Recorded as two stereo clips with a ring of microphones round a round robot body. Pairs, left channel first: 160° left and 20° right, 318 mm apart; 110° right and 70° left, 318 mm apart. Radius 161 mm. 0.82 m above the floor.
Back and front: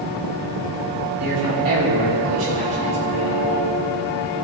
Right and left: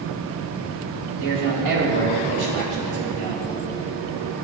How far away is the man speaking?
About 4 m.